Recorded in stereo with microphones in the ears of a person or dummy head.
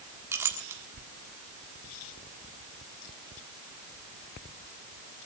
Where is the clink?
10° right (ahead or behind), 1.5 m.